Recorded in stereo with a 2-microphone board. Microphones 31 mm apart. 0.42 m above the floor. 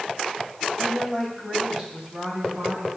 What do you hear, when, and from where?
0.8 s a woman speaking: 5° right (ahead or behind), 2.5 m; by 2.9 s 50° right (ahead or behind), 4 m